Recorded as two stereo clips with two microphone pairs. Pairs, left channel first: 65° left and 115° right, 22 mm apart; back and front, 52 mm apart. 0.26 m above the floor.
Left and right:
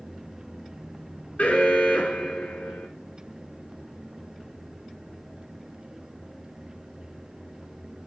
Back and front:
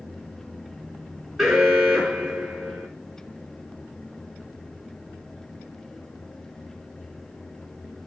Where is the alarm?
85° left, 5 m.